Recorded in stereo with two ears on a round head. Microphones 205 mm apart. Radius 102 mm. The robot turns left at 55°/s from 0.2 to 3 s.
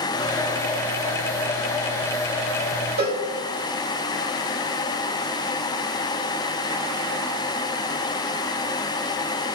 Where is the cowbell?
45° right (ahead or behind), 1.7 m.